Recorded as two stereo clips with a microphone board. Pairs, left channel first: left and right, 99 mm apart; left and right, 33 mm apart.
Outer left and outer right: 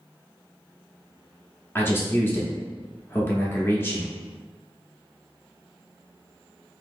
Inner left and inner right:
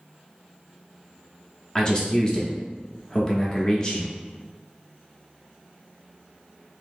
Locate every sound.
1.8 s a man speaking: 25° left (ahead or behind), 0.8 m